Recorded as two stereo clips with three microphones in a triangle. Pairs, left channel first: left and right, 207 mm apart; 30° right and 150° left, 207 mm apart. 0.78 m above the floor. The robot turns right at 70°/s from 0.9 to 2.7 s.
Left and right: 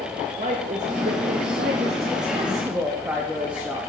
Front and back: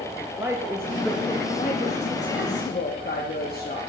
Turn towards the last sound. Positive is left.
turn(degrees=-5)